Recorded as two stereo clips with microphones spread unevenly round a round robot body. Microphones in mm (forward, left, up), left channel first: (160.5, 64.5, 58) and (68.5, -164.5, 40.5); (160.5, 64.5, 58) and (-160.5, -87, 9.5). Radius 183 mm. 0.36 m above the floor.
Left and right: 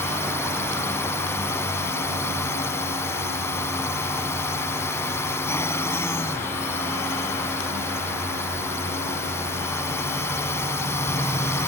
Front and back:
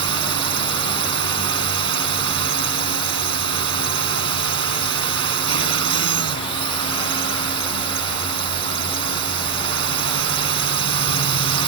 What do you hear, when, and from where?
0.0 s a drone: 150° left